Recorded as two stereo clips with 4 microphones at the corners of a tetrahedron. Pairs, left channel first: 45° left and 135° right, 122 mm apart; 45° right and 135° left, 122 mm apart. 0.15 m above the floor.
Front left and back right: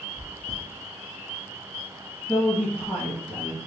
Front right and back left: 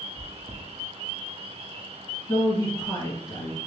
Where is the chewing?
150° left, 0.9 m.